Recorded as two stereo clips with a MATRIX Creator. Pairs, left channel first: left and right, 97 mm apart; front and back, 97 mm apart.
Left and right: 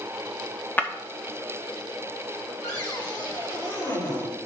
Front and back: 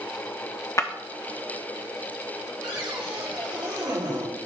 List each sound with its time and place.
0.8 s breaking glass: 35° left, 0.9 m
2.6 s a cupboard door: 145° left, 3.5 m